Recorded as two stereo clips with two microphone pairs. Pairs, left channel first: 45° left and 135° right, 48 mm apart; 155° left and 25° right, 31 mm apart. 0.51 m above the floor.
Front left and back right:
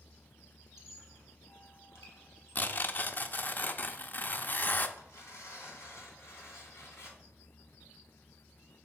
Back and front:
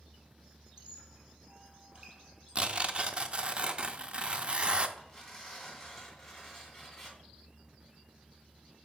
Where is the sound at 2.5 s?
15° left, 0.5 m.